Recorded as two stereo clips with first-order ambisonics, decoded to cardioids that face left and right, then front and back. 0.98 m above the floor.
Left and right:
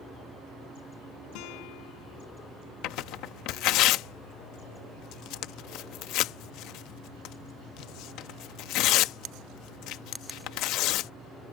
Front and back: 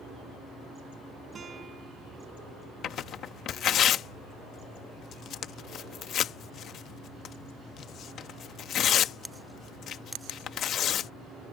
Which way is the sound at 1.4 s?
110° left.